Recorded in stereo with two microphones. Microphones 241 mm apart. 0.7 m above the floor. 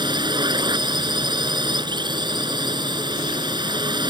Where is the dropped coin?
No dropped coin in this recording.